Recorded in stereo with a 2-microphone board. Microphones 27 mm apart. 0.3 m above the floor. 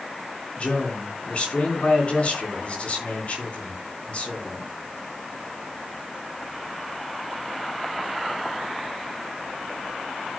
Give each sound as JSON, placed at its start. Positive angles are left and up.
{"t": 0.6, "sound": "a man speaking", "side_deg": 45, "distance_m": 3.0}